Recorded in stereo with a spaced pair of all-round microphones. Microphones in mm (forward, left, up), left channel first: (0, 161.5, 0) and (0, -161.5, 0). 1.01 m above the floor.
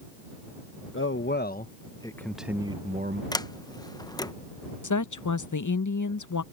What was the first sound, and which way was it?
A man speaking, 40° left (ahead or behind).